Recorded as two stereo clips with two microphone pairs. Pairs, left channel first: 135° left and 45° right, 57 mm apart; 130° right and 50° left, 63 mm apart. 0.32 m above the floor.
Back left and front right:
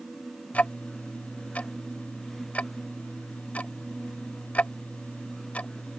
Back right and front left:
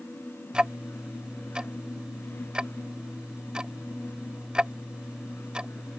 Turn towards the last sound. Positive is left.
turn(degrees=110)